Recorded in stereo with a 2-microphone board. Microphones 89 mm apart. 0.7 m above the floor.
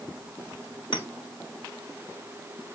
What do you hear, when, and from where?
0.9 s a clink: 75° left (ahead or behind), 1.5 m